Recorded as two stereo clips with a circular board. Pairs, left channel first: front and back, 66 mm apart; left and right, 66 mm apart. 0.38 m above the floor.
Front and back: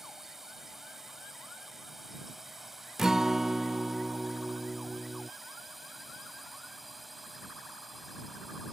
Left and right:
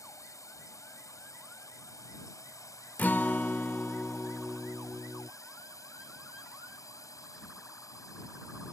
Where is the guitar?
105° left.